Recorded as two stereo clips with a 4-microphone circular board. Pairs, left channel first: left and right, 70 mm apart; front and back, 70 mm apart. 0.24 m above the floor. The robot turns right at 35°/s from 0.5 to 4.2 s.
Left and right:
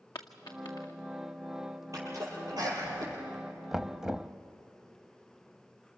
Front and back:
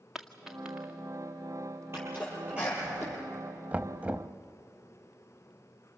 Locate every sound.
0.1 s a dropped coin: 95° left, 1.9 m; by 0.9 s 110° left, 1.9 m
1.9 s a sneeze: 130° right, 7.5 m; by 3.2 s 85° right, 7.5 m
3.7 s knocking: 165° right, 0.7 m; by 4.3 s 145° right, 0.7 m